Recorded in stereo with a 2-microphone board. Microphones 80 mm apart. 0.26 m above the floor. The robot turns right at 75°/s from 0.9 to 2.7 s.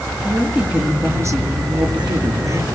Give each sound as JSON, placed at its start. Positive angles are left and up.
{"t": 0.2, "sound": "a woman speaking", "azimuth_deg": -165, "distance_m": 5.0}